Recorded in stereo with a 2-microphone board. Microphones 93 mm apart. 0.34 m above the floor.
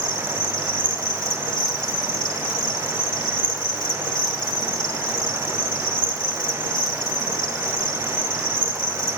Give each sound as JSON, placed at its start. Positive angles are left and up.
{"t": 0.0, "sound": "an insect", "side_deg": 60, "distance_m": 1.5}